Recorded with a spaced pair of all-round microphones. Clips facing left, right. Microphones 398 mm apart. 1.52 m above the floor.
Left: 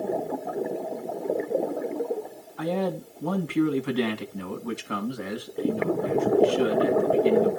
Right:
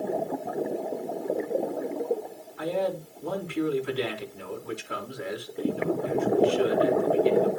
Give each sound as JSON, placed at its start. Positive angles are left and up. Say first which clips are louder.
{"t": 2.6, "sound": "a man speaking", "louder": "left 1 dB", "side_deg": 80, "distance_m": 2.5}